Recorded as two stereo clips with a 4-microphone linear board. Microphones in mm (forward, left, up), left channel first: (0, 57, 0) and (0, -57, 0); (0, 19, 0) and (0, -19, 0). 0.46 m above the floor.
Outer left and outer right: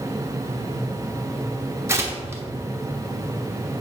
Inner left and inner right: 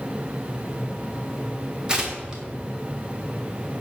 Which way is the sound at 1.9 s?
25° right (ahead or behind).